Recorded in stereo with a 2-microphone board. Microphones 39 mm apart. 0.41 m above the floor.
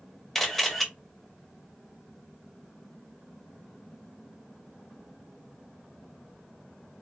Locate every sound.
0.3 s a camera shutter: 5° left (ahead or behind), 1.7 m